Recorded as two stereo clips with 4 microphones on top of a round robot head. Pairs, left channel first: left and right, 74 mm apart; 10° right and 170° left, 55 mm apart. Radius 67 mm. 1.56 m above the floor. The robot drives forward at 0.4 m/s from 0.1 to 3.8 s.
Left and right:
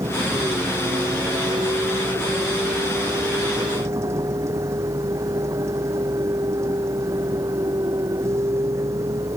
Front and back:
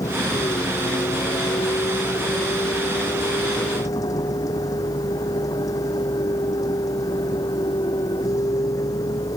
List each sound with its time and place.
0.0 s a vehicle: 35° right